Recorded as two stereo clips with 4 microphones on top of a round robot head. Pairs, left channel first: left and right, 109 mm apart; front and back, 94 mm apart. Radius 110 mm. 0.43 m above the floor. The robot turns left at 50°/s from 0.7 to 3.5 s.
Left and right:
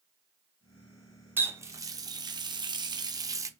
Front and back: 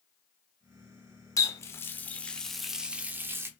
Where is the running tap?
30° right, 0.7 m; by 3.5 s 135° right, 0.7 m.